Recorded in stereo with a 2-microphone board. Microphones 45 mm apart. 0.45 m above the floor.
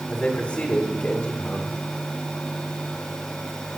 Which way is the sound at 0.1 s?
25° left (ahead or behind).